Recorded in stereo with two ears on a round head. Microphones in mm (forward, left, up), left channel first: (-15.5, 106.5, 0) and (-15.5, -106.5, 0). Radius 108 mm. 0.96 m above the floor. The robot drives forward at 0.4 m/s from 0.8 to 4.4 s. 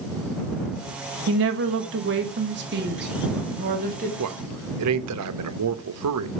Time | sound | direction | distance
1.3 | a woman speaking | 60° right (ahead or behind) | 1.4 m
4.2 | a man speaking | 70° right (ahead or behind) | 0.8 m